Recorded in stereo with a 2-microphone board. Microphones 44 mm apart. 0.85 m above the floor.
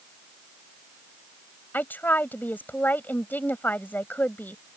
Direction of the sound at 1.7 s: 50° left (ahead or behind).